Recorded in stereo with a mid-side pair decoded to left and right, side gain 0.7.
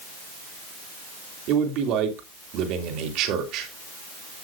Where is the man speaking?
60° right, 3 m.